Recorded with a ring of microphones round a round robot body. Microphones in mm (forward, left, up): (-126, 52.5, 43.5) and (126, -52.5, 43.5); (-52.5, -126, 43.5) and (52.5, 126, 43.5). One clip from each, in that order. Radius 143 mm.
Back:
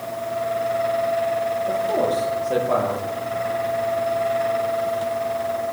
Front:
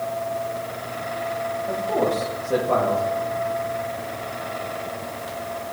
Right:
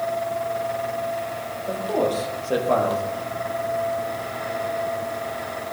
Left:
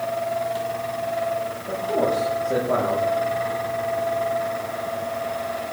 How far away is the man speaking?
About 7.5 m.